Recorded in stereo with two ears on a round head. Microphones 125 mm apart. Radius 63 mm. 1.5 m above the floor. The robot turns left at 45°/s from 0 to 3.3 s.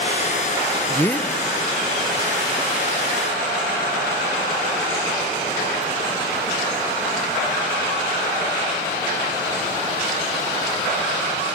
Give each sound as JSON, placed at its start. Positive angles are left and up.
{"t": 0.9, "sound": "a man speaking", "side_deg": 20, "distance_m": 0.7}